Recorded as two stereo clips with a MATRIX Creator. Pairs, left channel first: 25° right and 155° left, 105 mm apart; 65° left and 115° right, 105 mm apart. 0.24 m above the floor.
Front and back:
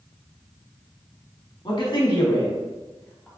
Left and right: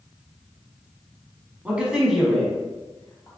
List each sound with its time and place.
1.6 s a man speaking: 40° right, 2.0 m; by 3.3 s 45° left, 1.4 m